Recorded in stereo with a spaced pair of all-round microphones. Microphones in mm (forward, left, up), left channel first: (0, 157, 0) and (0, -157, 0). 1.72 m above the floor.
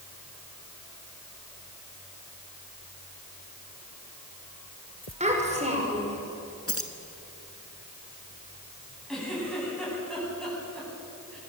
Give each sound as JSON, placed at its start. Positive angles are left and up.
{"t": 5.2, "sound": "a child speaking", "side_deg": -20, "distance_m": 5.5}
{"t": 6.7, "sound": "keys jangling", "side_deg": 45, "distance_m": 1.7}
{"t": 9.1, "sound": "a giggle", "side_deg": 0, "distance_m": 9.5}